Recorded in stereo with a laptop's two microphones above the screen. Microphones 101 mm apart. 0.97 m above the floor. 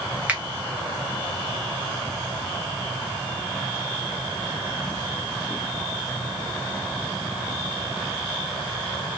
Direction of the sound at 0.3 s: 15° right (ahead or behind).